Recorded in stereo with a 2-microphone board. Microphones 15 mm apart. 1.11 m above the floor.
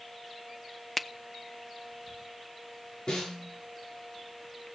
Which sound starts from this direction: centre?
A finger snap, at 1.0 s.